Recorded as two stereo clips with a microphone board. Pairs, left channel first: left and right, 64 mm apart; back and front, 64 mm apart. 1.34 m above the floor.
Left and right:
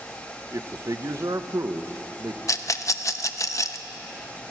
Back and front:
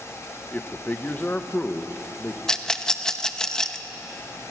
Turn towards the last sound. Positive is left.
turn(degrees=105)